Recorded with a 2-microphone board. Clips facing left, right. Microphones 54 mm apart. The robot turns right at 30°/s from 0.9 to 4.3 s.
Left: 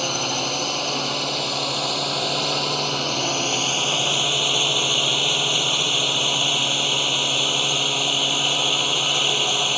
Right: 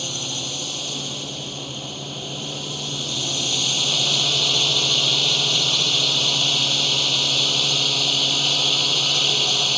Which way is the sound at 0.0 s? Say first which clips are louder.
Left 6 dB; 60° left.